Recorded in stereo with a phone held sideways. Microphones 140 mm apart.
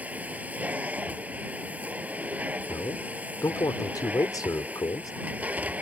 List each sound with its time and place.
0.0 s a machine running: 10° right (ahead or behind)
2.7 s a man speaking: 25° left (ahead or behind)